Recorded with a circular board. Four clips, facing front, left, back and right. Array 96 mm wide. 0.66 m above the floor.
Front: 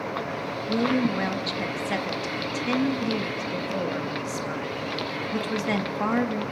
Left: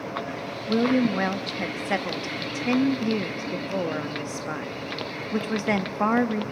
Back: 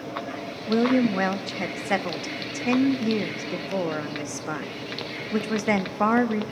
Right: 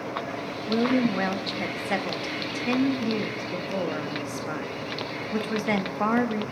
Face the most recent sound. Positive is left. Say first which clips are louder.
# left 2 dB, back 3 dB
turn(degrees=165)